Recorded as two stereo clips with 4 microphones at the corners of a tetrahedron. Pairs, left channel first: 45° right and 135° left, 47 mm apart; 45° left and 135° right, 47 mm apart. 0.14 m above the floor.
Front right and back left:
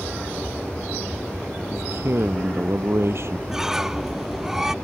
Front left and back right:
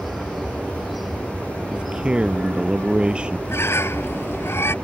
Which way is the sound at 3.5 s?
55° left.